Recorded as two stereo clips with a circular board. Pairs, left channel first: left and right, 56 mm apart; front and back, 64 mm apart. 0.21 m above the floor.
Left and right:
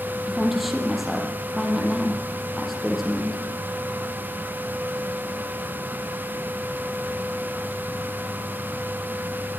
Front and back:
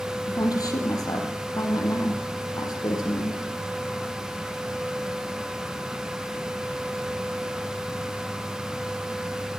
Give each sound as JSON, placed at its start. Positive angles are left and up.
{"t": 0.3, "sound": "a woman speaking", "azimuth_deg": 0, "distance_m": 5.5}